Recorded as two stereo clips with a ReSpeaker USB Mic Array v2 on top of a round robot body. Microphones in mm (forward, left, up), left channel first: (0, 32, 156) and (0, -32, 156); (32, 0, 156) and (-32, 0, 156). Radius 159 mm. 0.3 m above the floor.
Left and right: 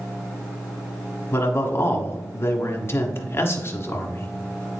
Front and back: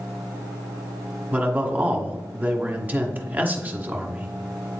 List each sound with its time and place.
1.3 s a man speaking: 125° left, 1.2 m